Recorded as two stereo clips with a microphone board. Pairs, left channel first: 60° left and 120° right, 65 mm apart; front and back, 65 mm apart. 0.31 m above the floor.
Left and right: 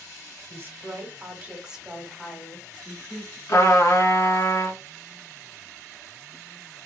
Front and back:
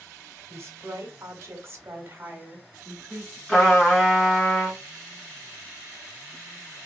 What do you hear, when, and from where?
0.5 s a woman speaking: 155° right, 1.5 m; by 3.4 s 125° left, 1.8 m
3.5 s a trumpet: 90° left, 2.5 m